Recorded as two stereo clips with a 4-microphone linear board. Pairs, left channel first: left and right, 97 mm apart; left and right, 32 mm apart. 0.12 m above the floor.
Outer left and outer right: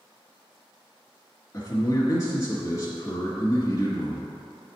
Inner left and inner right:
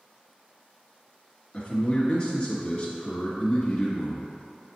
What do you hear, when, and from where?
1.5 s a man speaking: 35° left (ahead or behind), 1.9 m